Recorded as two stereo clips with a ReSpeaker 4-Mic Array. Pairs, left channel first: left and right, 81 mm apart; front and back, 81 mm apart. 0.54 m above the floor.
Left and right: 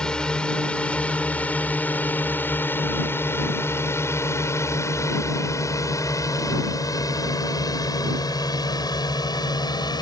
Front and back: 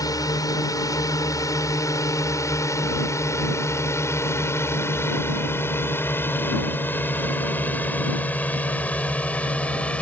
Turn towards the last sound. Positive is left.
turn(degrees=75)